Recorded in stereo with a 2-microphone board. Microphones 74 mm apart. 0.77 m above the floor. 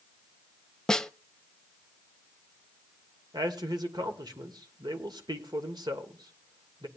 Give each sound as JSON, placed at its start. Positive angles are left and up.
{"t": 0.9, "sound": "a snare drum", "side_deg": 5, "distance_m": 0.5}
{"t": 3.3, "sound": "a man speaking", "side_deg": -70, "distance_m": 2.0}